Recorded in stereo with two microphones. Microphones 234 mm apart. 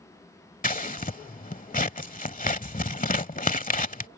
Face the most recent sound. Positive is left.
turn(degrees=35)  # may be behind; listen again after turning